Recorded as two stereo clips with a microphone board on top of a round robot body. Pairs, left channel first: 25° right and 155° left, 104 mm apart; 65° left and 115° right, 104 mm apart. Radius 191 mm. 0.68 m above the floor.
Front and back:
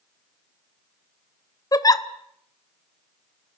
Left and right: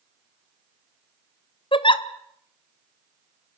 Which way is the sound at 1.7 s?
30° left.